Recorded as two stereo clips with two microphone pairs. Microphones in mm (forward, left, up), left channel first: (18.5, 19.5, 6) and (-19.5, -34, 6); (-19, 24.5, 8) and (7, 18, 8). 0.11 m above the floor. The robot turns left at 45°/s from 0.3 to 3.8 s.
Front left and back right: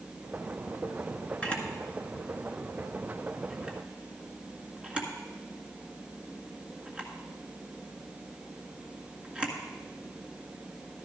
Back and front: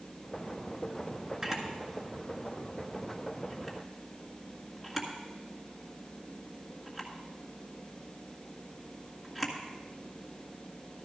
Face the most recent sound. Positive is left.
turn(degrees=-80)